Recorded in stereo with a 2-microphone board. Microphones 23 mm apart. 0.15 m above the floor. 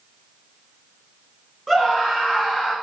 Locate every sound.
1.7 s a scream: 15° left (ahead or behind), 1.6 m; by 2.7 s 20° left (ahead or behind), 1.6 m